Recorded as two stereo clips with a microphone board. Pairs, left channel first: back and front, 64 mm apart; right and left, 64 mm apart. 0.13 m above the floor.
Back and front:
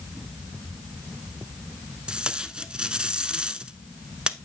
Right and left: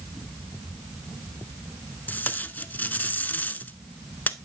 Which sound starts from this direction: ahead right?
Tape being pulled, at 2.1 s.